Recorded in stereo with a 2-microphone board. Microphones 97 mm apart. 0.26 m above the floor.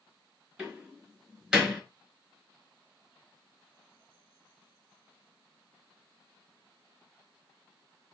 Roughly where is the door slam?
Centre.